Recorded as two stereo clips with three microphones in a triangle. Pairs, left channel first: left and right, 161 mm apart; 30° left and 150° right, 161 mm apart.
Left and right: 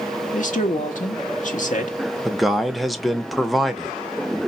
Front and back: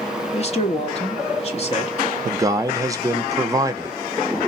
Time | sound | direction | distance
0.3 | a man speaking | 70° left | 1.2 m
2.2 | a man speaking | straight behind | 0.7 m